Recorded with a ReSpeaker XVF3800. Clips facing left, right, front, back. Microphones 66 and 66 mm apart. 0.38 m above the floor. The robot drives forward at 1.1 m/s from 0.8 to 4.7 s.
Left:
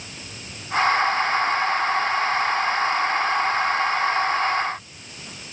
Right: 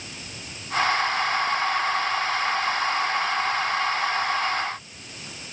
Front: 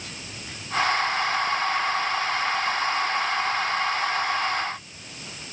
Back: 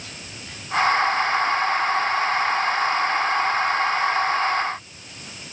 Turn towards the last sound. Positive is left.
No sound to turn to.